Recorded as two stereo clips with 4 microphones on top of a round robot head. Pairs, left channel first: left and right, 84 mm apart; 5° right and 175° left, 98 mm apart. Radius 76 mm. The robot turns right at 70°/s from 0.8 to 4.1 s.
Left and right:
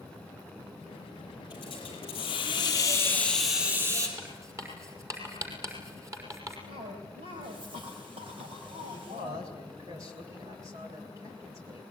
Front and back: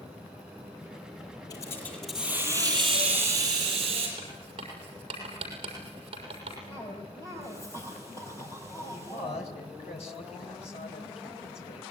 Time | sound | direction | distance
1.5 | a hiss | 40° left | 8 m
4.2 | writing | 140° right | 6 m
6.7 | a cough | 70° right | 4 m
8.9 | a man speaking | 30° right | 3 m